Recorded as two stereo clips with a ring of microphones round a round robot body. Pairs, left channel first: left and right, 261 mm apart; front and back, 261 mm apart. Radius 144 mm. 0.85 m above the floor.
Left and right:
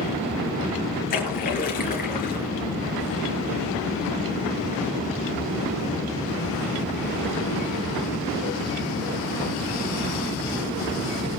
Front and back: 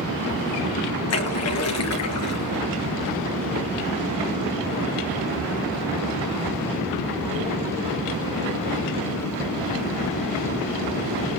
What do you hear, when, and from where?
1.1 s a splash: 30° left, 5 m